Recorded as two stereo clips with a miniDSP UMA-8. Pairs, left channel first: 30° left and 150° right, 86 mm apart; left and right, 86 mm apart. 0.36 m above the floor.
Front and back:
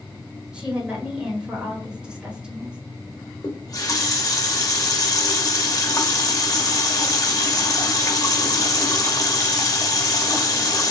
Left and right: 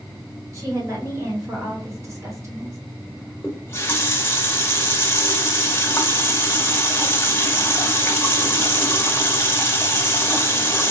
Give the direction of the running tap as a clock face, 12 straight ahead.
11 o'clock.